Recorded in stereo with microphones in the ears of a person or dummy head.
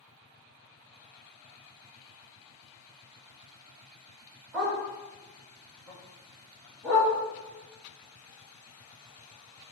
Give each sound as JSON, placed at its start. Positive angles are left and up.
{"t": 4.5, "sound": "a dog barking", "side_deg": 0, "distance_m": 1.1}